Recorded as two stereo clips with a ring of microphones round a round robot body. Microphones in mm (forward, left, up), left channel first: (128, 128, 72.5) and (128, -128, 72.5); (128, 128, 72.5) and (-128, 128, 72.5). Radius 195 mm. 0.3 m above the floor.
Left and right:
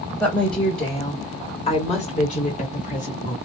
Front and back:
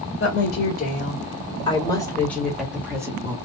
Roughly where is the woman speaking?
Ahead.